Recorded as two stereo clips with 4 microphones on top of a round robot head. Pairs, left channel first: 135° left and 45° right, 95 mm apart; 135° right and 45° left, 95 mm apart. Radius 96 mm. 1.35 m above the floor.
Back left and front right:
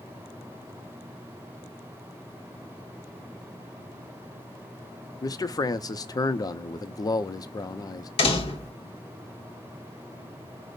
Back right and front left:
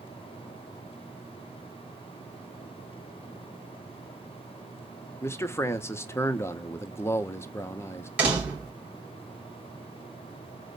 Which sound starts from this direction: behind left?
A door slam, at 8.2 s.